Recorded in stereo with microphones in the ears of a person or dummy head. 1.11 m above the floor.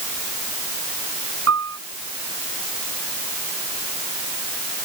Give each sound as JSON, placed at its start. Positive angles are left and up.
{"t": 1.5, "sound": "a piano", "side_deg": -75}